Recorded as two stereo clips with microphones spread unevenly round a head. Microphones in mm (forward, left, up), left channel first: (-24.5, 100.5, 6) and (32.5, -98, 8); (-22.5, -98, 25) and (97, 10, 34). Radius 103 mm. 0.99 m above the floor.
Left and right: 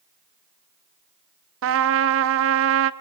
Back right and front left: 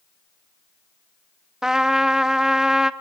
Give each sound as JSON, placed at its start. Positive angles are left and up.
{"t": 1.6, "sound": "a trumpet", "azimuth_deg": -45, "distance_m": 0.6}